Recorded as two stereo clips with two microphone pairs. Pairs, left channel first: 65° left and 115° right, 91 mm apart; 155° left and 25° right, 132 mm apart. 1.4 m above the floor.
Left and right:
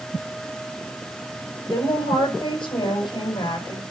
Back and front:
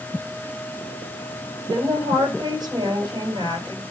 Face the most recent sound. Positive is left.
turn(degrees=35)